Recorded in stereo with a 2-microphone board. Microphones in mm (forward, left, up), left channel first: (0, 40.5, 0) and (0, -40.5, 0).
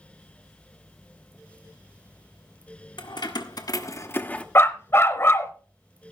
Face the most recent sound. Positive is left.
turn(degrees=30)  # may be behind; listen again after turning